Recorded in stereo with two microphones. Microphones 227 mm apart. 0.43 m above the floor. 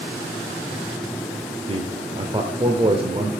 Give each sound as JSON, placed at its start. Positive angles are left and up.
{"t": 1.7, "sound": "a man speaking", "side_deg": -25, "distance_m": 1.1}